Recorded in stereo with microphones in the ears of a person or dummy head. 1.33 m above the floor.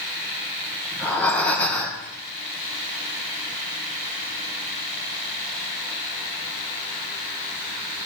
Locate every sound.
0.9 s breathing: 10° left (ahead or behind), 1.4 m